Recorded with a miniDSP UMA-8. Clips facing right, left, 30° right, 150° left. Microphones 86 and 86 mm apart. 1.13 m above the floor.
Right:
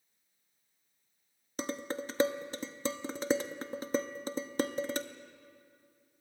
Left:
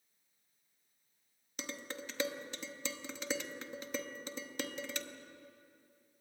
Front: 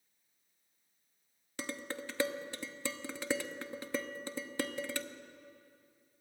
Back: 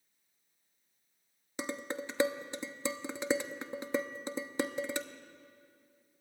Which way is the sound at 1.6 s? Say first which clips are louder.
Right 8 dB, back 3 dB; 140° right.